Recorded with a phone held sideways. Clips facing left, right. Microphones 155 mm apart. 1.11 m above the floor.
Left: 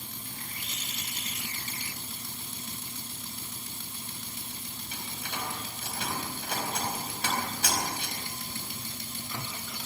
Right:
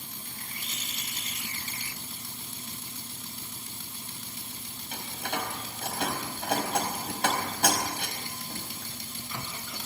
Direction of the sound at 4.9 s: 70° right (ahead or behind).